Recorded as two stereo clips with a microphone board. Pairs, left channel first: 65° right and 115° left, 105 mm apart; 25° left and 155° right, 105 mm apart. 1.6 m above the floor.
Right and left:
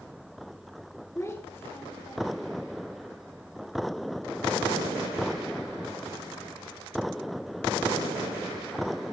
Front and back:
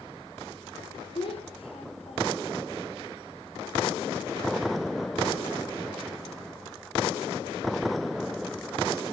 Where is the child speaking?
5° right, 4.5 m; by 2.6 s 15° left, 4 m.